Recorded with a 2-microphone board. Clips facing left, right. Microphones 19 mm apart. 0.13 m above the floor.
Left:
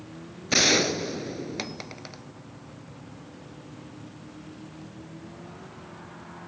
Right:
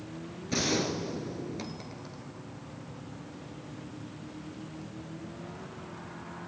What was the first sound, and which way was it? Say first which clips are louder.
A gunshot: left 8 dB; 50° left (ahead or behind).